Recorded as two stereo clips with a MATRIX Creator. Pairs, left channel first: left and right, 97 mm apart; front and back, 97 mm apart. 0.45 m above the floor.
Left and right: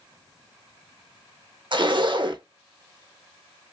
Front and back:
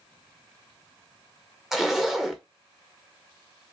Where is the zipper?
95° right, 0.5 m.